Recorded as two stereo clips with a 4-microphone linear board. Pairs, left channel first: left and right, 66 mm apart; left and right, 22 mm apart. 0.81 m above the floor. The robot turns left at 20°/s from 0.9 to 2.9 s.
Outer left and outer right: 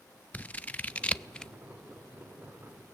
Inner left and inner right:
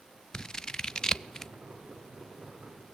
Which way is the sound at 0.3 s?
25° left (ahead or behind).